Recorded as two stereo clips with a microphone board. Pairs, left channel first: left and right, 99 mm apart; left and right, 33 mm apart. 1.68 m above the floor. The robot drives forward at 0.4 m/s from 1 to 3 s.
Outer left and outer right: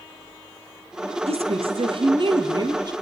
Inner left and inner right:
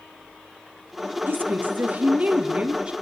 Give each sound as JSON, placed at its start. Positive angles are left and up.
{"t": 1.3, "sound": "a woman speaking", "side_deg": -75, "distance_m": 0.8}